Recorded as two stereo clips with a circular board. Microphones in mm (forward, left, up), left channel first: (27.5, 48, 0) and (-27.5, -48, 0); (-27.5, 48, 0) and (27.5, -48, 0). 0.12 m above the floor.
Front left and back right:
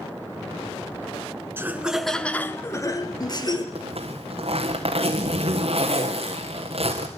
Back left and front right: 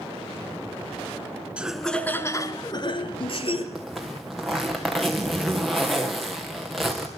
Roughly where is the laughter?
Behind right.